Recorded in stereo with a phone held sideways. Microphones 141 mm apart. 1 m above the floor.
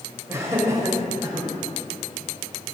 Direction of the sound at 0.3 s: 20° right (ahead or behind).